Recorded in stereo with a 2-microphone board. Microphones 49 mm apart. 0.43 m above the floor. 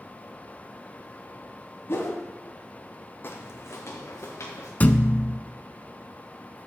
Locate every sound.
1.9 s a whoosh: 55° left (ahead or behind), 1.9 m
3.2 s footsteps: 45° left (ahead or behind), 1.0 m; by 4.7 s 65° left (ahead or behind), 2.5 m
4.8 s a thud: 30° left (ahead or behind), 0.5 m